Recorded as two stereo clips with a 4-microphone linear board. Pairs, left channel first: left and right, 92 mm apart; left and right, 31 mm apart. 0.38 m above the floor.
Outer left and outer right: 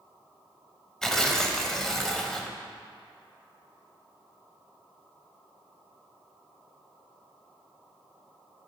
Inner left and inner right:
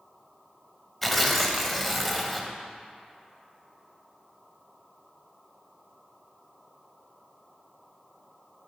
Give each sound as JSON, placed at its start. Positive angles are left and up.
{"t": 1.0, "sound": "tearing paper", "side_deg": 5, "distance_m": 0.5}